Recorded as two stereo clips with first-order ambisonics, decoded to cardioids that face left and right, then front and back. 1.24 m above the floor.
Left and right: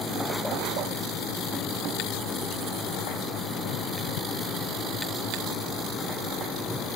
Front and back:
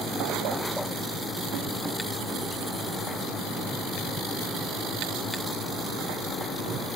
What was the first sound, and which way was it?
Only background noise.